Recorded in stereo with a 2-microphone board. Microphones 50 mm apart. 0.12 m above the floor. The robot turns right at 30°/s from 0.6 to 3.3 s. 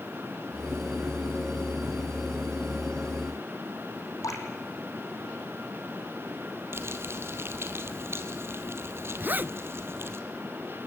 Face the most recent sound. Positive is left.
turn(degrees=-35)  # may be behind; listen again after turning